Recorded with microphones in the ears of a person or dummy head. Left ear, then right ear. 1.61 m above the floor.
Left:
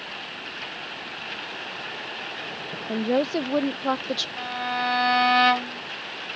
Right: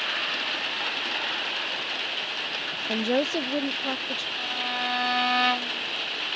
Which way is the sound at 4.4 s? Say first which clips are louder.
Left 1 dB; centre (ahead or behind).